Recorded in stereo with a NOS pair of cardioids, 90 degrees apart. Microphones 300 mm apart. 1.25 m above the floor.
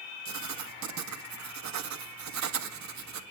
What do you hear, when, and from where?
0.2 s writing: 60° right, 1.9 m